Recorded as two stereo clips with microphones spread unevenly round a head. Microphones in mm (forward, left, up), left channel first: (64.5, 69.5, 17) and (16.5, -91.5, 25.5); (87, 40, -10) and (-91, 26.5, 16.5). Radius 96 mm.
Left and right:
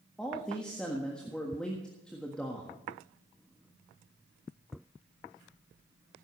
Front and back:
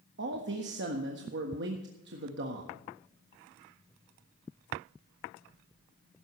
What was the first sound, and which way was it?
A man speaking, 160° left.